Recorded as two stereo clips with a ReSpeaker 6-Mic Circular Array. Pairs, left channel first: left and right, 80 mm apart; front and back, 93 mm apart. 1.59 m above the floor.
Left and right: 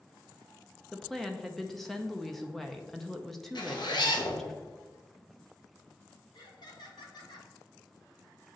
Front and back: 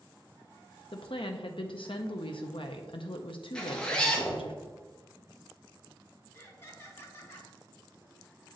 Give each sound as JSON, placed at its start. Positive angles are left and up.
{"t": 0.9, "sound": "a woman speaking", "azimuth_deg": 0, "distance_m": 0.5}
{"t": 3.5, "sound": "a zipper", "azimuth_deg": 80, "distance_m": 1.0}
{"t": 6.3, "sound": "laughter", "azimuth_deg": 65, "distance_m": 1.5}